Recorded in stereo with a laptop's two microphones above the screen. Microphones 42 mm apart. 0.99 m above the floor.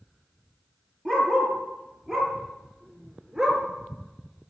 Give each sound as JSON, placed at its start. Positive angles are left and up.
{"t": 1.1, "sound": "a dog barking", "side_deg": 10, "distance_m": 5.0}